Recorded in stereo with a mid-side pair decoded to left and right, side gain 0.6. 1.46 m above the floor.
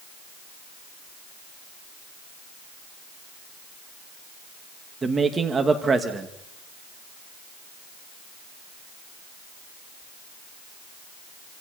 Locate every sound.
5.0 s a man speaking: 25° right, 2 m